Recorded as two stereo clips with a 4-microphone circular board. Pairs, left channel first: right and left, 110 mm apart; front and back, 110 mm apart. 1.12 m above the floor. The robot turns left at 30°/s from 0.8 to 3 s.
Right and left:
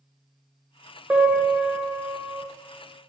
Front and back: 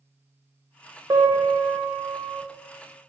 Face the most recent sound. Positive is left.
turn(degrees=105)